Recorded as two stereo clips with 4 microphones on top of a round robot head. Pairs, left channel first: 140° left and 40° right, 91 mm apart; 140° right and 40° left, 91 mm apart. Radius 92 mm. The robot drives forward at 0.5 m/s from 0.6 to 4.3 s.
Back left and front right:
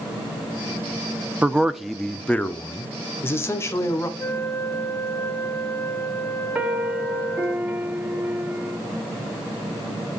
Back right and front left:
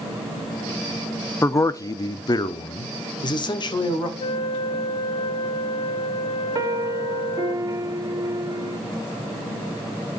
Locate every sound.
1.4 s a man speaking: 105° right, 0.7 m; by 4.1 s 165° right, 1.6 m
4.2 s a flute: 155° right, 0.5 m
6.5 s a piano: 25° left, 0.9 m